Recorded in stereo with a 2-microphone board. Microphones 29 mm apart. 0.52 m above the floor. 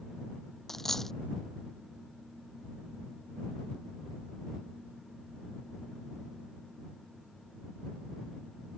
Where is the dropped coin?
15° left (ahead or behind).